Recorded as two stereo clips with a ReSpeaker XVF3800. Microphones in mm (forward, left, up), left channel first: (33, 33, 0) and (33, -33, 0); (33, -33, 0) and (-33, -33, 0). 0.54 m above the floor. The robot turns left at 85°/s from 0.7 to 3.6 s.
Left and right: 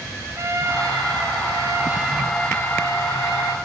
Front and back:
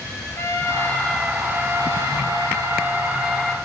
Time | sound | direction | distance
0.4 | a trumpet | 50° right | 3.5 m